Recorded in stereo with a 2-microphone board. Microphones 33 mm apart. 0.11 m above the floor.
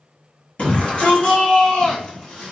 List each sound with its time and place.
0.6 s a shout: 40° left (ahead or behind), 2.0 m; by 2.5 s 5° left (ahead or behind), 1.6 m